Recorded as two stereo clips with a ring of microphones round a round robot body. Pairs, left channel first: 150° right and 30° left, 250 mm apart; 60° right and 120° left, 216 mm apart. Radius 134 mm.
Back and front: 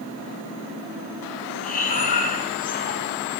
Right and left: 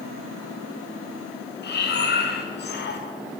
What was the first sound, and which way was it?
Breathing, 95° right.